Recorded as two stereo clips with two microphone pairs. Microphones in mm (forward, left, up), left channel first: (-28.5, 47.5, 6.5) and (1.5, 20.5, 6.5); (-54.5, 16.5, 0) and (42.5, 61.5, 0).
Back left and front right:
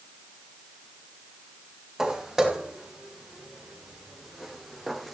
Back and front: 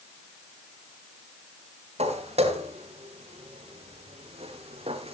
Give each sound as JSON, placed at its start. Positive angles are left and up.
{"t": 2.0, "sound": "footsteps", "azimuth_deg": 35, "distance_m": 4.5}